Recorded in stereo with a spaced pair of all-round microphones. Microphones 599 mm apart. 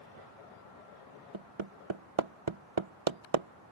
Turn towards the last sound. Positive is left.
turn(degrees=-50)  # may be behind; listen again after turning